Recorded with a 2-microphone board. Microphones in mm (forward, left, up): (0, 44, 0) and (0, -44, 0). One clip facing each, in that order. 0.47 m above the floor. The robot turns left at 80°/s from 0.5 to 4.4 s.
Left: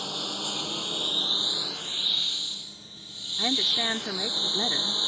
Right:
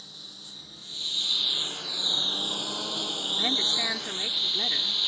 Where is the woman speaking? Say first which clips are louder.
Left 3 dB; 5° left (ahead or behind); by 5.0 s 20° left (ahead or behind).